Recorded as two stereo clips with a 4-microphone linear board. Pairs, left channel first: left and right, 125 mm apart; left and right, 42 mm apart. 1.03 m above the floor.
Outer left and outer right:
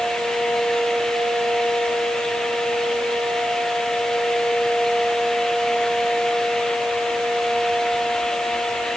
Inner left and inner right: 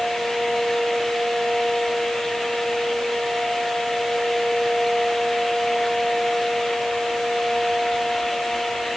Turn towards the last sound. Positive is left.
No sound to turn to.